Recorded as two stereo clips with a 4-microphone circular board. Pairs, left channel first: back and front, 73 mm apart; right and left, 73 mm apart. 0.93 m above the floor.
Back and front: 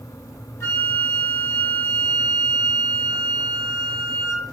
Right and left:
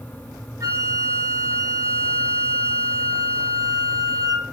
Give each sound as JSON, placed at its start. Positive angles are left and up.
{"t": 0.6, "sound": "a flute", "azimuth_deg": 135, "distance_m": 0.6}